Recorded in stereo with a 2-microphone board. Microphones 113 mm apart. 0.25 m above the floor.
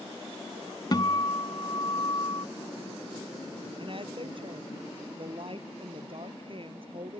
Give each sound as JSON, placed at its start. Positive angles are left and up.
{"t": 0.9, "sound": "a guitar", "side_deg": 40}
{"t": 3.8, "sound": "a woman speaking", "side_deg": -50}